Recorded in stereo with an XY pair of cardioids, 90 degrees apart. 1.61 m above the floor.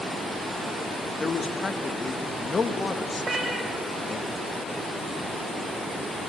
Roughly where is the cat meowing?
Ahead right.